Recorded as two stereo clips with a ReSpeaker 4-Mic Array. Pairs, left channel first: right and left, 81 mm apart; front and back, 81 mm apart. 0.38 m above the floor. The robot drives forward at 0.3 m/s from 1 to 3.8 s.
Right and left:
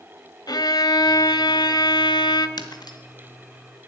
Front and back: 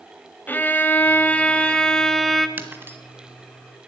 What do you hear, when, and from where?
0.5 s a violin: 65° right, 1.1 m; by 2.5 s 90° right, 1.0 m
2.6 s breaking glass: 115° right, 1.7 m; by 3.0 s 120° right, 1.7 m